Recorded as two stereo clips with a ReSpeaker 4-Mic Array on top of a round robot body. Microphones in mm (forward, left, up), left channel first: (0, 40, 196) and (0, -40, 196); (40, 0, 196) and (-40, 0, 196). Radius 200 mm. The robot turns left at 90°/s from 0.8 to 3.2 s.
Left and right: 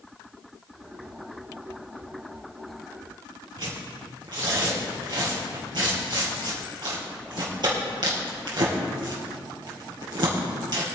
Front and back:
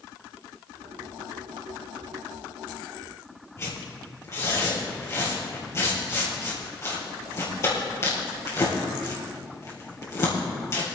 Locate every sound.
3.6 s tearing paper: 55° right, 3 m